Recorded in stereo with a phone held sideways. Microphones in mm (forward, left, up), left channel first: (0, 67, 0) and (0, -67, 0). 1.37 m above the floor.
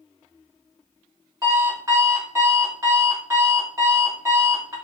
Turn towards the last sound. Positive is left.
turn(degrees=-25)  # may be behind; listen again after turning